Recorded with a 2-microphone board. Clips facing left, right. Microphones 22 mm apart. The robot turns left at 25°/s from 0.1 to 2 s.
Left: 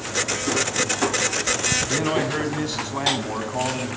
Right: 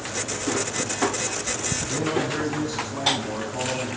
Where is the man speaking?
40° left (ahead or behind), 1.9 m; by 3.9 s 35° left (ahead or behind), 1.9 m.